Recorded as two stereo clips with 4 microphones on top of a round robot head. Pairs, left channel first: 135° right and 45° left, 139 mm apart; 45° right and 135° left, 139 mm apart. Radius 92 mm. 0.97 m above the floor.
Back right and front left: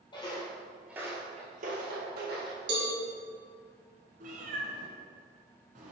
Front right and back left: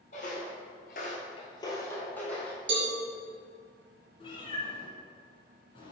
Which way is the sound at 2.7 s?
95° left.